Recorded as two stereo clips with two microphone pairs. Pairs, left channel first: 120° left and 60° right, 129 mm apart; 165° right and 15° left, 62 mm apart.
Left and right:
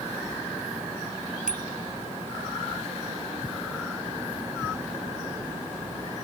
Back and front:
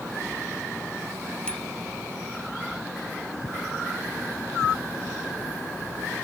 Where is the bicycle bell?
125° left.